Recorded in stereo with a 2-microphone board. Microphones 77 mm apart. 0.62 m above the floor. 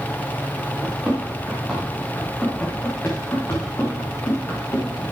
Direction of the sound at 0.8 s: 20° right (ahead or behind).